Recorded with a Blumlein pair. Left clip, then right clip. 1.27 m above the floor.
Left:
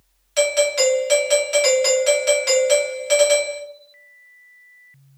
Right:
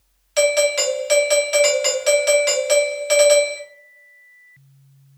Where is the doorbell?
10° right, 0.9 m.